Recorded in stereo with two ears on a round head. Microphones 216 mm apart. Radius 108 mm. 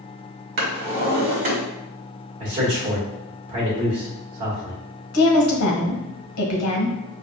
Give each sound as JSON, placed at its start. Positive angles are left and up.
{"t": 0.6, "sound": "a drawer", "side_deg": -40, "distance_m": 1.7}
{"t": 2.4, "sound": "a man speaking", "side_deg": -30, "distance_m": 1.8}
{"t": 5.1, "sound": "a woman speaking", "side_deg": 75, "distance_m": 1.3}